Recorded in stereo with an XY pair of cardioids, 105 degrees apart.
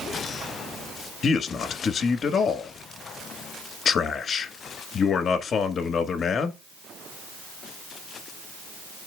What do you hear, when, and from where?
1.2 s a man speaking: 50° left, 1.5 m